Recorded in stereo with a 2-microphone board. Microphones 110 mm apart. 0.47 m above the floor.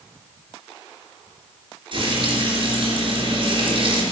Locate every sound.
1.9 s frying: 50° right (ahead or behind), 3.5 m